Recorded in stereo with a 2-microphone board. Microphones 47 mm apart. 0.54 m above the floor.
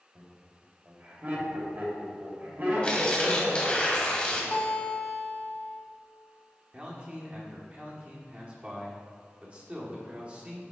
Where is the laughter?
40° right (ahead or behind), 2 m.